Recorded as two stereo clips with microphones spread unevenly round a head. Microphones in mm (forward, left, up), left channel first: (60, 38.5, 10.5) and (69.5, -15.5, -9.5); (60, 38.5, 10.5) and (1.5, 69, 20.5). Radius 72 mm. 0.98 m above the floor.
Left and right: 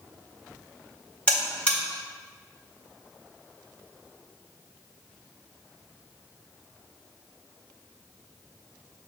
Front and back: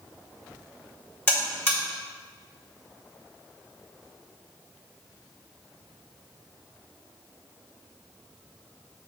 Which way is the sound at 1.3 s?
25° left.